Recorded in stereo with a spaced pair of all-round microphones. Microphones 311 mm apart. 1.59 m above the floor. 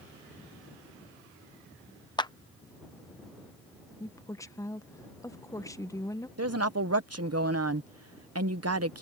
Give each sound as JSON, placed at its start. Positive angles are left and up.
{"t": 2.2, "sound": "a clap", "side_deg": 15}
{"t": 4.0, "sound": "a woman speaking", "side_deg": 10}
{"t": 6.4, "sound": "a woman speaking", "side_deg": -50}